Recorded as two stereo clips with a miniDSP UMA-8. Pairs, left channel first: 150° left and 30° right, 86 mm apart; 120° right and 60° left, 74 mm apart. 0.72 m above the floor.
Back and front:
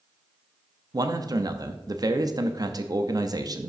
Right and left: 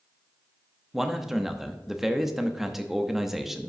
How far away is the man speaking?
About 0.7 m.